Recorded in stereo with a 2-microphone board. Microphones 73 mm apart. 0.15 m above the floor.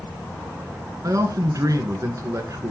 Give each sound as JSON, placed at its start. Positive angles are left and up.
{"t": 1.0, "sound": "a man speaking", "side_deg": -50, "distance_m": 1.5}